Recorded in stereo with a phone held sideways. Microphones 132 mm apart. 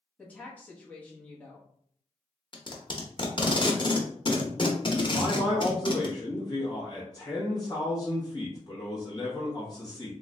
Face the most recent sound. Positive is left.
turn(degrees=30)  # may be behind; listen again after turning